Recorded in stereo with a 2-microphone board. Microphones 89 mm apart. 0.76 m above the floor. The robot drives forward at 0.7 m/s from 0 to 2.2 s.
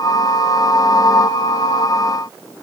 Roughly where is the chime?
I don't hear a chime.